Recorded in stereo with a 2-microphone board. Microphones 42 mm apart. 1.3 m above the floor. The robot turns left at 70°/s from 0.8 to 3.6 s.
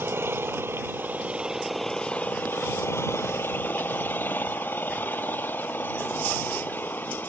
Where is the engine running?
110° right; by 7.3 s 50° left.